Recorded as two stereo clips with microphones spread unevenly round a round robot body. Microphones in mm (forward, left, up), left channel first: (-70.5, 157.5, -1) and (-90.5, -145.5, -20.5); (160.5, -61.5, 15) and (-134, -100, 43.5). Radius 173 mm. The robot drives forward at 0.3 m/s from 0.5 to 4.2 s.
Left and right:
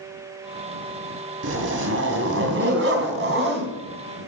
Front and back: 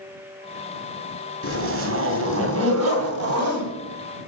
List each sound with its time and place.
1.4 s a zipper: 130° right, 2 m; by 3.7 s 145° right, 2.5 m